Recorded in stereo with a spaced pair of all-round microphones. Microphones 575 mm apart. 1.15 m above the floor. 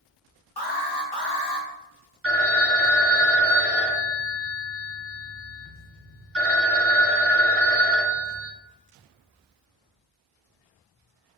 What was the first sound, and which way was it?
An alarm, 40° left (ahead or behind).